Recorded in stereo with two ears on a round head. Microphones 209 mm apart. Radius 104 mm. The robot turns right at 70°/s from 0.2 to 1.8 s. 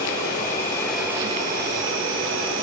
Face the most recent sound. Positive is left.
turn(degrees=-125)